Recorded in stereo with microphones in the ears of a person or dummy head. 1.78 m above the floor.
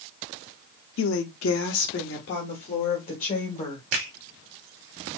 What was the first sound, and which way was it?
A woman speaking, 75° left (ahead or behind).